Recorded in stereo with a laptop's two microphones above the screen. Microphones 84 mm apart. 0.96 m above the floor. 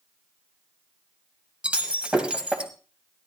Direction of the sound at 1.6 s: 15° right (ahead or behind).